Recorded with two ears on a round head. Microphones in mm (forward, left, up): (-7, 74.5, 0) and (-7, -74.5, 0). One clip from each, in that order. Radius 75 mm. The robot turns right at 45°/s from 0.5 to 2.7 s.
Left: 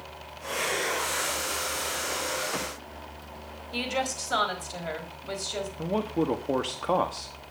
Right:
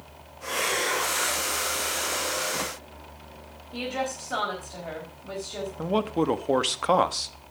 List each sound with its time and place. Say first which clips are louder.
3.7 s a woman speaking: left 1 dB; 75° left (ahead or behind), 4.5 m
5.8 s a man speaking: right 4 dB; 45° right (ahead or behind), 1.2 m